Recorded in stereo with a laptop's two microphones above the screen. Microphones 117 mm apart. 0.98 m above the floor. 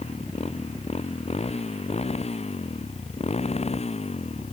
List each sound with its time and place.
0.0 s a motorcycle: 60° left (ahead or behind)